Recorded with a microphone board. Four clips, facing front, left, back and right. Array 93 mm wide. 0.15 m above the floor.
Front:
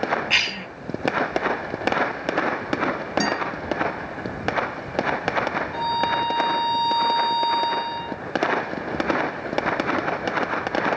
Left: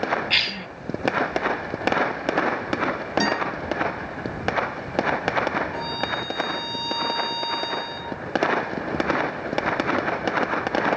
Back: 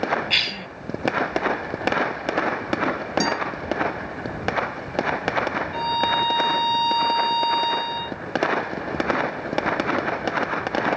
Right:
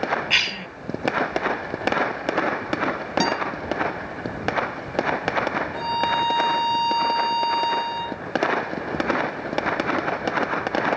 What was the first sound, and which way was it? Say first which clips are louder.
A cough: right 2 dB, front 2 dB; 45° right.